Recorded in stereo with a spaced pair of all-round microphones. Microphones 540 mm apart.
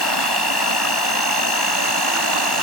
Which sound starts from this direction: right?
An insect, at 0.0 s.